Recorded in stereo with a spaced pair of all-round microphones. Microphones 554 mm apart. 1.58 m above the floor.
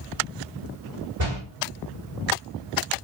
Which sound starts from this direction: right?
A door slam, at 1.2 s.